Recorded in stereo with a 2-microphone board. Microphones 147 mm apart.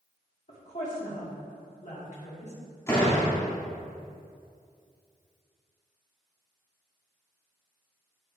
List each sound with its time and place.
0.5 s a woman speaking: 55° left (ahead or behind), 2 m
2.9 s a door slam: 20° left (ahead or behind), 1.8 m